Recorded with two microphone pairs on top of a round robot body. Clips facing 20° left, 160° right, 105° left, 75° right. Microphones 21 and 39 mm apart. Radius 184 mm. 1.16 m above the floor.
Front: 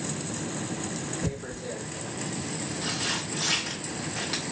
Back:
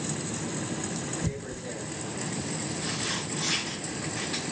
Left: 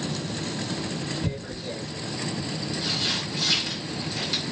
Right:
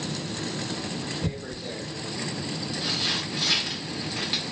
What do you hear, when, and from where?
1.2 s tearing paper: 15° right, 1.4 m